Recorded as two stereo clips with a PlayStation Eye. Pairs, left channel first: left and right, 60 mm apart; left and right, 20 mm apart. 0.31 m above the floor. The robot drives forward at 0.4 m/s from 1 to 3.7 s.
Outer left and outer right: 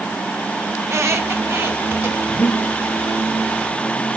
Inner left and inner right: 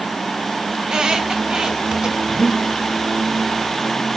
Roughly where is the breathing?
Left.